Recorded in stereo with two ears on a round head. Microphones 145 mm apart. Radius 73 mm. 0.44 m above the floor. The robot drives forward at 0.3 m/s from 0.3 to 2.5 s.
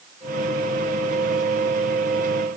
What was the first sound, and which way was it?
Only background noise.